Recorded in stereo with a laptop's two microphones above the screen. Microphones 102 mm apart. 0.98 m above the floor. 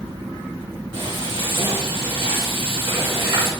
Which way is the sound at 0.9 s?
55° right (ahead or behind).